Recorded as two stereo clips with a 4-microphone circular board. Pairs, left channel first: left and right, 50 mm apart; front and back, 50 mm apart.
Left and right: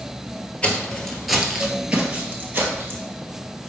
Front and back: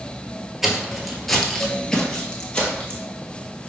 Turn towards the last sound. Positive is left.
turn(degrees=-65)